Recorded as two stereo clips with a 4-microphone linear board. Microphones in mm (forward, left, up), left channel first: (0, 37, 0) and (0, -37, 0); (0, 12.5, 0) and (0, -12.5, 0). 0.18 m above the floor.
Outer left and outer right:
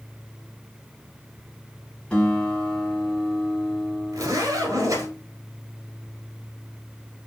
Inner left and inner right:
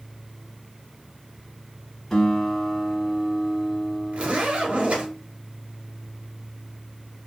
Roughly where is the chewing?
I don't hear chewing.